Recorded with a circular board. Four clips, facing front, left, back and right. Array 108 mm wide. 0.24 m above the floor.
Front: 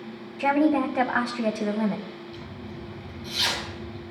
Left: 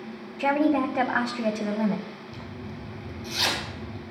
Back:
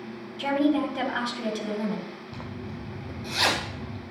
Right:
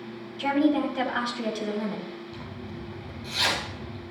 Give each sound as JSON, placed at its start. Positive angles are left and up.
{"t": 0.4, "sound": "a woman speaking", "azimuth_deg": 45, "distance_m": 1.7}
{"t": 2.3, "sound": "a zipper", "azimuth_deg": 175, "distance_m": 3.0}